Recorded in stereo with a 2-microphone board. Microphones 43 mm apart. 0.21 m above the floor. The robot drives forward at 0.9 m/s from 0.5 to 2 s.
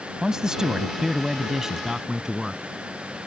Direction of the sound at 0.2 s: 15° right (ahead or behind).